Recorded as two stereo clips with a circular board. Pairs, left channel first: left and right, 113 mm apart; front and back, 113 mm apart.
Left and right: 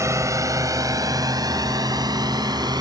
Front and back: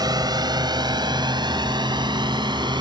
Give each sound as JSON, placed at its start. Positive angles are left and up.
{"t": 0.0, "sound": "a drone", "azimuth_deg": -145}